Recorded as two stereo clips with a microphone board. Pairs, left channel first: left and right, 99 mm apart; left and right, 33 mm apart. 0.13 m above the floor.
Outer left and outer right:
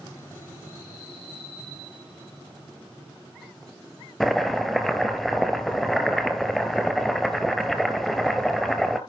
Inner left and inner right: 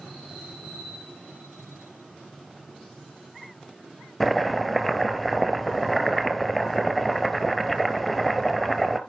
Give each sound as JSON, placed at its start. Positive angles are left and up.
{"t": 4.2, "sound": "chopping", "side_deg": 0, "distance_m": 1.3}